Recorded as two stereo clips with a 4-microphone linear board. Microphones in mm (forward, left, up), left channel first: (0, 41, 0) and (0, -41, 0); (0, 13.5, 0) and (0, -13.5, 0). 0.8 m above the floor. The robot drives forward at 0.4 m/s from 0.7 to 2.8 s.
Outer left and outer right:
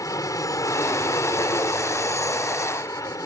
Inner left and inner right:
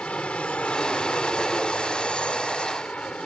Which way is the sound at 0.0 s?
45° left (ahead or behind).